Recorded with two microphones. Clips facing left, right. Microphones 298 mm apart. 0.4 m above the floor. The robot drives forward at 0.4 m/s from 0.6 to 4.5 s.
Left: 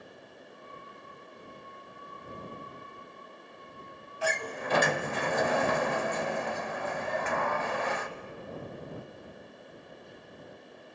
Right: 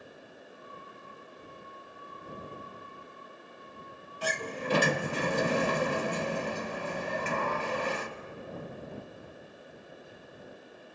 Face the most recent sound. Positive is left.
turn(degrees=-40)  # may be behind; listen again after turning